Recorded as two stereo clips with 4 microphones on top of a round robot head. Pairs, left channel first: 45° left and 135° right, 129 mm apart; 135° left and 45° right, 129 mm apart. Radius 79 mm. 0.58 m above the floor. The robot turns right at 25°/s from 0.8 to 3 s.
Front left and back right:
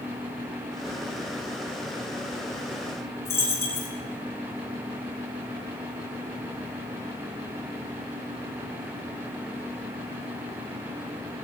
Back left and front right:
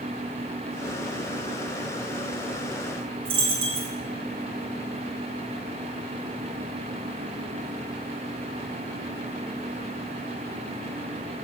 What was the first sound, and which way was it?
A dropped coin, 25° right.